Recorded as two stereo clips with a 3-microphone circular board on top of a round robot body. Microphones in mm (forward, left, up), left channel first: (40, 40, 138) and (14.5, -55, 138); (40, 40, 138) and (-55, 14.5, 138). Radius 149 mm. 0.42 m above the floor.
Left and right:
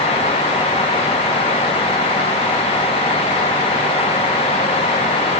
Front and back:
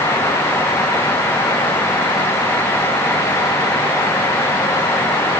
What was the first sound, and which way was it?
Only background noise.